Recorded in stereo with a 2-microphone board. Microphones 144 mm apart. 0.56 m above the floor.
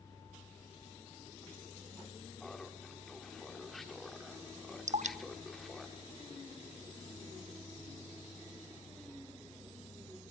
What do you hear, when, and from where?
2.4 s laughter: centre (ahead or behind), 1.5 m
4.9 s dripping: 60° right (ahead or behind), 0.8 m